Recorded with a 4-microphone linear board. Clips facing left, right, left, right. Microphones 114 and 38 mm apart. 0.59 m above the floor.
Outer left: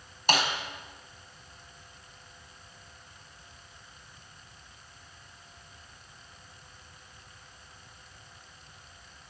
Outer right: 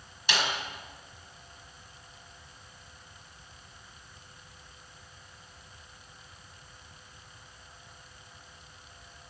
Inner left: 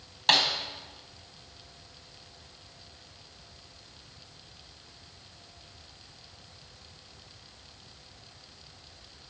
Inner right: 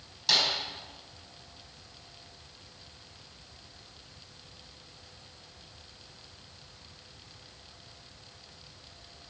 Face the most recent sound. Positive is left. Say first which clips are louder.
# outer left 4 dB, inner left 3 dB
turn(degrees=45)  # may be behind; listen again after turning